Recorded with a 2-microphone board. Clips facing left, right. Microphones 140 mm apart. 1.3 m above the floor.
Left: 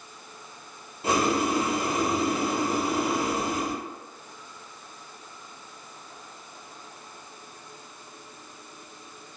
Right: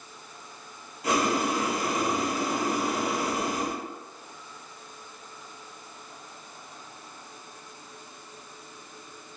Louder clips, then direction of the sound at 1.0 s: Left 1 dB; 30° left (ahead or behind).